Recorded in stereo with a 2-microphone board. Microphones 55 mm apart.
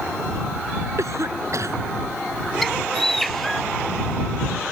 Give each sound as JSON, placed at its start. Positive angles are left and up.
{"t": 1.0, "sound": "a cough", "side_deg": -65}
{"t": 2.6, "sound": "a bird", "side_deg": 5}